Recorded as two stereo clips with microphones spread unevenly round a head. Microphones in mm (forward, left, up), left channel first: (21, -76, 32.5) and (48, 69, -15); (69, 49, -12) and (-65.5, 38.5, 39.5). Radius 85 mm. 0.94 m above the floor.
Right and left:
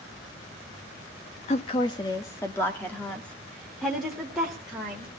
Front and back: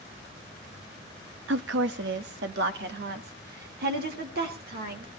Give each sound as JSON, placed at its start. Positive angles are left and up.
{"t": 1.5, "sound": "a woman speaking", "azimuth_deg": -160, "distance_m": 0.8}